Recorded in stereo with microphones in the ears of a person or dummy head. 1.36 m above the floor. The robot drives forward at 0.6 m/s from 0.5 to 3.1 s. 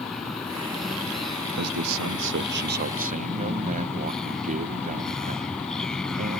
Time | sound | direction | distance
0.0 | a vehicle | 5° left (ahead or behind) | ?
1.5 | a man speaking | 75° right (ahead or behind) | ?